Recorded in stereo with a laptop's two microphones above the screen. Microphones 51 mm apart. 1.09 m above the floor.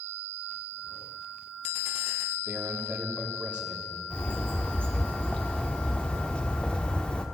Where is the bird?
25° left (ahead or behind), 1.3 m.